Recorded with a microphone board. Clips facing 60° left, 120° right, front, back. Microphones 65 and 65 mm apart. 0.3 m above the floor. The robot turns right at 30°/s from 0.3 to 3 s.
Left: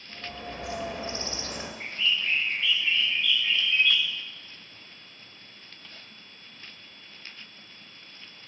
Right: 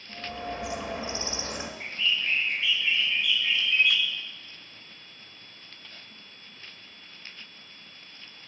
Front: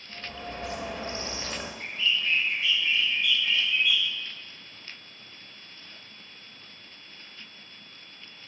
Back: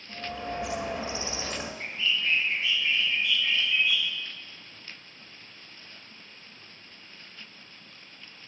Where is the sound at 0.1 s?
150° right, 0.6 m; by 1.7 s 110° right, 0.6 m.